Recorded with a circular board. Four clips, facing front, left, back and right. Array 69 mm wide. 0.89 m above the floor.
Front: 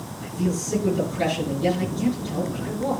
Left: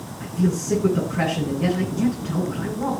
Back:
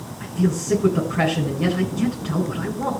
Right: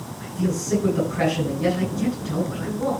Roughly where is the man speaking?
Behind.